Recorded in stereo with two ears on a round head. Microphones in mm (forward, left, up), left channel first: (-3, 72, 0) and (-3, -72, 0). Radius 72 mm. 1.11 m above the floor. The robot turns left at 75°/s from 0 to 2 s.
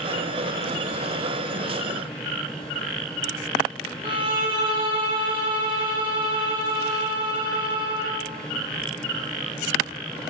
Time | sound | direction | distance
4.0 | a violin | 30° right (ahead or behind) | 0.7 m